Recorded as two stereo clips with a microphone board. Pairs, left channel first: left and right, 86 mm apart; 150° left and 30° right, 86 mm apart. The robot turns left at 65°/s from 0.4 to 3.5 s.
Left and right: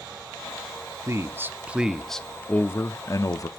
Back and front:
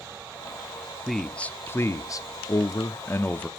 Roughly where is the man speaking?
Behind right.